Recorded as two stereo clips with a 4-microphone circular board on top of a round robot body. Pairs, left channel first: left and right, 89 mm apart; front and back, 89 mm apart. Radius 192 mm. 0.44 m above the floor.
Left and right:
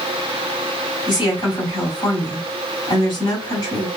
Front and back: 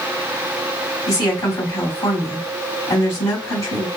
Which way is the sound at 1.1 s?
50° left.